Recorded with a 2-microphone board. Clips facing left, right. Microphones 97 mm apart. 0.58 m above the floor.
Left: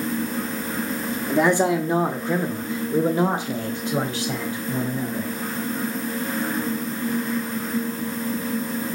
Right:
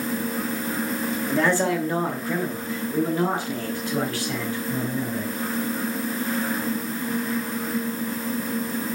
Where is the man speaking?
15° left (ahead or behind), 1.1 m; by 5.3 s 20° left (ahead or behind), 2.5 m.